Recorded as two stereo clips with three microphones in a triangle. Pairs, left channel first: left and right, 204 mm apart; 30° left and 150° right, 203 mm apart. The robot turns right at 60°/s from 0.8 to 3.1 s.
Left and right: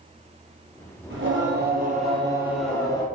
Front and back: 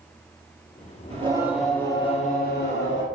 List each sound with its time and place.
1.1 s singing: 90° right, 1.7 m; by 3.0 s 25° left, 1.7 m